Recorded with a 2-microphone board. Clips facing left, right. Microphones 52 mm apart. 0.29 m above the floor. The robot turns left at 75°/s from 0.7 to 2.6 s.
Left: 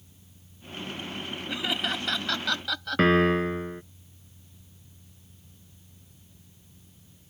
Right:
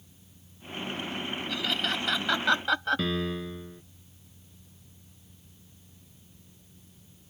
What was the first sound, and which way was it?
Laughter, 25° left (ahead or behind).